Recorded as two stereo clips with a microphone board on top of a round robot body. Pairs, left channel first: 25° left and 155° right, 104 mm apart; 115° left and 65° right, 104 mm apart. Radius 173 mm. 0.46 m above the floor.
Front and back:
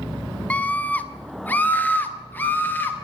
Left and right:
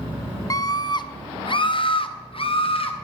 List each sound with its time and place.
0.5 s a scream: 90° left, 1.0 m; by 3.0 s 95° left, 2.5 m